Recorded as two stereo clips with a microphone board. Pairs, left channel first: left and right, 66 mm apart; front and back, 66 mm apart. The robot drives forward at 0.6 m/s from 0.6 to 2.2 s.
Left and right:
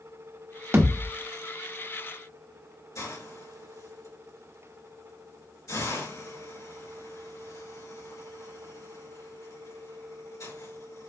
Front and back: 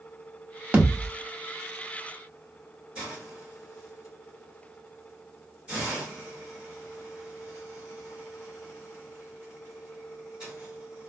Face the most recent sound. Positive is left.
turn(degrees=110)